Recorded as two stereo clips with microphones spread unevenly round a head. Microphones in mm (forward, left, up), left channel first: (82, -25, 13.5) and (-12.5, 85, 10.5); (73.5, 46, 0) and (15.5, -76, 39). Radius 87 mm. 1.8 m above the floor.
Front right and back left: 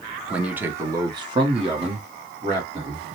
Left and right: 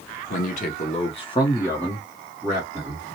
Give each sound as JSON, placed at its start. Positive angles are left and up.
{"t": 0.3, "sound": "a man speaking", "azimuth_deg": 50, "distance_m": 0.9}